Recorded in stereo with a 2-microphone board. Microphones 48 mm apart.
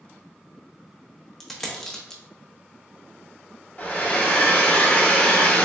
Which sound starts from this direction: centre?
A dropped coin, at 1.4 s.